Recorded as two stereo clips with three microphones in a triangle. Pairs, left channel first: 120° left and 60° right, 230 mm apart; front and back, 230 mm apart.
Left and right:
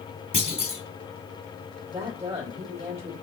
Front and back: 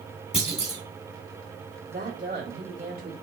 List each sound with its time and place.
0.3 s a clunk: 60° left, 2.5 m
1.9 s a woman speaking: 130° right, 2.5 m